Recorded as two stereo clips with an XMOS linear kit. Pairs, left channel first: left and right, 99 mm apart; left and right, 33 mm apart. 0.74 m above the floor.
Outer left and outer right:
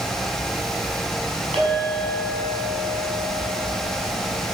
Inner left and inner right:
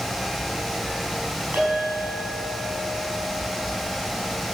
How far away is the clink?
About 5 m.